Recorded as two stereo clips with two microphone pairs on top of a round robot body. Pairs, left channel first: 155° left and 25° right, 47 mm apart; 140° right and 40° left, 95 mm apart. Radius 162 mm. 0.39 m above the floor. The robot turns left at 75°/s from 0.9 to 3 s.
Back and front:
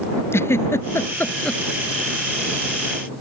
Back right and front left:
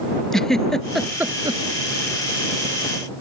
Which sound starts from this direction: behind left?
A giggle, at 0.3 s.